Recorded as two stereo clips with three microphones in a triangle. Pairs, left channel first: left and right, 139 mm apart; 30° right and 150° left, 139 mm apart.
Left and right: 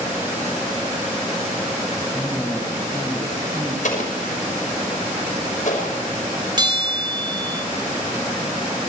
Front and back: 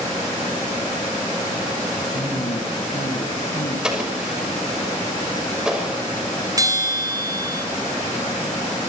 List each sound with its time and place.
2.0 s a man speaking: 5° left, 7 m; by 3.7 s 20° right, 6.5 m
3.8 s an explosion: 65° left, 5.5 m
6.6 s a bell: 145° right, 3 m